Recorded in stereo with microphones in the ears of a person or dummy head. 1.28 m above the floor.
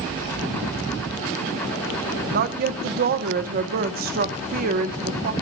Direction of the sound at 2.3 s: 50° right (ahead or behind).